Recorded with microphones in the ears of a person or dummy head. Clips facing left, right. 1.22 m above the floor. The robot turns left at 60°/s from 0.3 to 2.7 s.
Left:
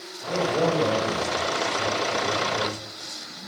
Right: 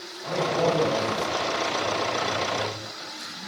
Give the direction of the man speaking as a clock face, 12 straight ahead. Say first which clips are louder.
Left 1 dB; 6 o'clock.